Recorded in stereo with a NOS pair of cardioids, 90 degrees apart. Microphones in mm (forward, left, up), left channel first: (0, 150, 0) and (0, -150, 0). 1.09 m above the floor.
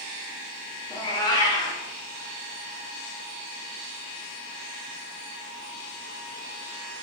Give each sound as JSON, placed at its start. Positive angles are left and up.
{"t": 0.9, "sound": "a cat meowing", "azimuth_deg": 15, "distance_m": 1.2}